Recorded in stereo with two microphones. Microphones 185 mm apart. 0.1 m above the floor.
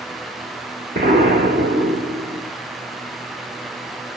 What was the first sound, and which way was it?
An explosion, 55° right (ahead or behind).